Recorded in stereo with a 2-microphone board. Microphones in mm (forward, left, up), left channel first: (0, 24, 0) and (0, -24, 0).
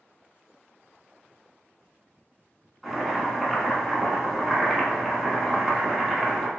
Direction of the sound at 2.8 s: 5° left (ahead or behind).